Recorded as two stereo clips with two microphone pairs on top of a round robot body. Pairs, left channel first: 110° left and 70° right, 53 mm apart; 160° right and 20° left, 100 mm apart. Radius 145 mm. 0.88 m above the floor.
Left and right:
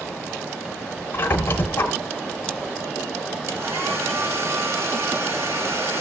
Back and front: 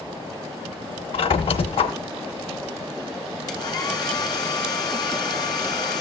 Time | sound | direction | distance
1.1 | a squeak | 160° left | 1.0 m
3.5 | a hair dryer | 105° right | 2.5 m